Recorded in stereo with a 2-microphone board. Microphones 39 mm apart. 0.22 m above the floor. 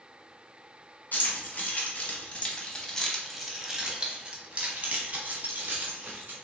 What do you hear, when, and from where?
1.1 s keys jangling: 55° left (ahead or behind), 1.5 m; by 6.3 s 55° right (ahead or behind), 1.8 m